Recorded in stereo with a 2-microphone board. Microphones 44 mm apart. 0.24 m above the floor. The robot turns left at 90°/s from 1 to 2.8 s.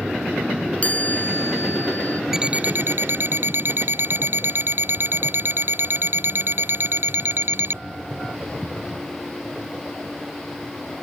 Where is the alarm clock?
10° right; by 7.8 s 50° right.